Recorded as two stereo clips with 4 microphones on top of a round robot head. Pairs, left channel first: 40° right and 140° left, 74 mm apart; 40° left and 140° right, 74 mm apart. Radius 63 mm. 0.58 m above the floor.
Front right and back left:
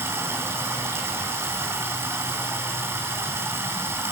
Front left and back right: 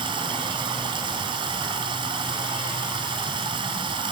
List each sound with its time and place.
0.0 s running water: 160° right, 3 m